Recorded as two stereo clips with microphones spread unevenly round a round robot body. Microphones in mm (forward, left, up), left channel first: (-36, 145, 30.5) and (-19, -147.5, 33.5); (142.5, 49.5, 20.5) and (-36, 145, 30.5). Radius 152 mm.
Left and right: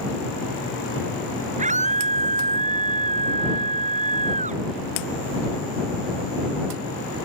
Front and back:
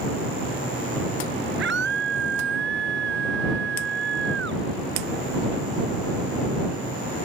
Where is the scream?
155° right.